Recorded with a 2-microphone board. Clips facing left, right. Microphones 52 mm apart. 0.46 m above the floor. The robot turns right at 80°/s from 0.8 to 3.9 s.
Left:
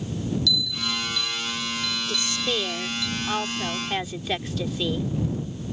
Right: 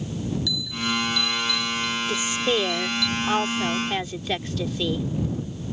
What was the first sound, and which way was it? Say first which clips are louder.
A bell: right 1 dB; 20° right.